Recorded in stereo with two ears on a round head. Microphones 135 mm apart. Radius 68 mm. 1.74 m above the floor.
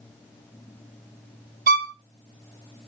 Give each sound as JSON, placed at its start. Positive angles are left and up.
{"t": 1.7, "sound": "a violin", "side_deg": -60, "distance_m": 1.0}